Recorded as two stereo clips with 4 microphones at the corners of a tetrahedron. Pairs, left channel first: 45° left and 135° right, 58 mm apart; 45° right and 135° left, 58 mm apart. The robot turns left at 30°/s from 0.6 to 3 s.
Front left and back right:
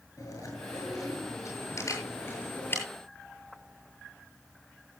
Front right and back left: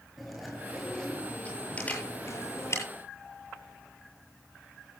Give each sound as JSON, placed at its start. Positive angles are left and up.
{"t": 0.2, "sound": "chewing", "azimuth_deg": 50, "distance_m": 7.5}
{"t": 1.8, "sound": "a camera shutter", "azimuth_deg": 25, "distance_m": 8.0}